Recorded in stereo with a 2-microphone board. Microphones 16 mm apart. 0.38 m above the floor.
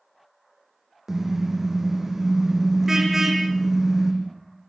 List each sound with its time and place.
1.1 s a car horn: 30° right (ahead or behind), 7.5 m